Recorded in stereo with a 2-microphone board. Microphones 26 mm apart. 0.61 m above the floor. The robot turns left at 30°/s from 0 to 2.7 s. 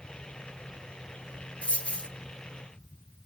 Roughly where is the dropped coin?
Left.